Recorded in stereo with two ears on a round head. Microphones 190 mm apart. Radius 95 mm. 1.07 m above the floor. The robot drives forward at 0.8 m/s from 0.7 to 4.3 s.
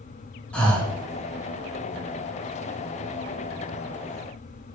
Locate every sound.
0.5 s breathing: 5° left (ahead or behind), 2.0 m